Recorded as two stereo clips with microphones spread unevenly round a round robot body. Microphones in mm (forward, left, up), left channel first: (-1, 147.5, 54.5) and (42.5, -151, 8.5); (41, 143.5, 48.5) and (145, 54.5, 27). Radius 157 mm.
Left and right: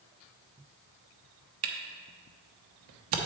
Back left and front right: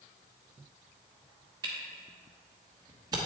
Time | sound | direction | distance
1.6 | a camera shutter | 105° right | 0.9 m